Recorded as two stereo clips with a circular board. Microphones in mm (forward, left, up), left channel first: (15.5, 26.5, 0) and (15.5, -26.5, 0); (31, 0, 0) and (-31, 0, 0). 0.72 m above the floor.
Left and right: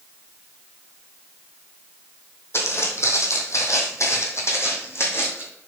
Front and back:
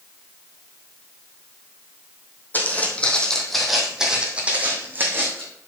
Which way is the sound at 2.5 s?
60° left.